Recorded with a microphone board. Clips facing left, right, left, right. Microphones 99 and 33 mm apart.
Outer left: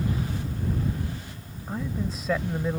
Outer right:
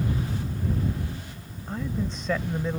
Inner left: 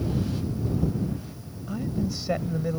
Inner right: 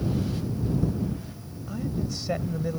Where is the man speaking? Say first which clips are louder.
Even, inner left 2 dB; 5° left (ahead or behind).